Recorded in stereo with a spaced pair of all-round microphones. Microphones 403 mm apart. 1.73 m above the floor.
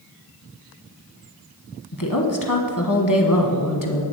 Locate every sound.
1.9 s a woman speaking: 50° left (ahead or behind), 1.1 m